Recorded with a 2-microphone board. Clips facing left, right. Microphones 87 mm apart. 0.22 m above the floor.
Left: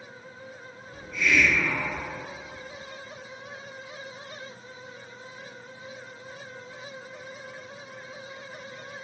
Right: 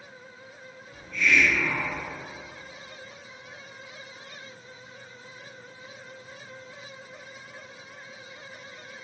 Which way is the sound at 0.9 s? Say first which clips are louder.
Even; 15° left (ahead or behind).